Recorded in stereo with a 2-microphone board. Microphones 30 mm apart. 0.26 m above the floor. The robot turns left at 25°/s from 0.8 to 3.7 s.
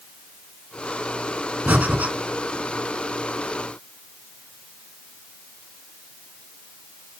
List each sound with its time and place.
1.7 s breathing: 65° right (ahead or behind), 1.8 m; by 2.1 s 70° right (ahead or behind), 1.8 m